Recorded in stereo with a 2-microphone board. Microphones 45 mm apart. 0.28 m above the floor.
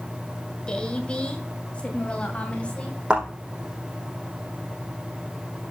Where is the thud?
25° right (ahead or behind), 5.5 m.